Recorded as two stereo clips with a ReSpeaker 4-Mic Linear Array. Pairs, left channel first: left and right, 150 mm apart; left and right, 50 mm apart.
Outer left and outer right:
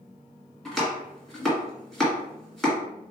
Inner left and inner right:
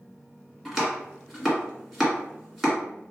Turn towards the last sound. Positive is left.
turn(degrees=5)  # may be behind; listen again after turning